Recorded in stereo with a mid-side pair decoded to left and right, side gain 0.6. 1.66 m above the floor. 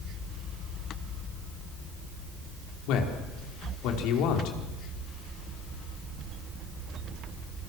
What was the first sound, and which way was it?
A man speaking, 70° left.